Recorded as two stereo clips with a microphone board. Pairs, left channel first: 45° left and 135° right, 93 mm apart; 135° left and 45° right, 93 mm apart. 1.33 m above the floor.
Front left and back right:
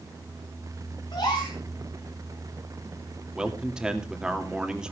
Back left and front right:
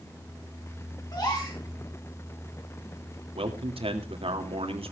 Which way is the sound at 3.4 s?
50° right.